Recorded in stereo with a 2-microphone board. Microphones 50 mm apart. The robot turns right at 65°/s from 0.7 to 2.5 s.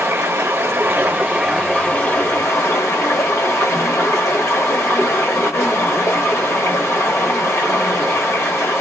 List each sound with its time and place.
0.0 s running water: 60° right, 1.0 m; by 8.8 s 55° left, 1.0 m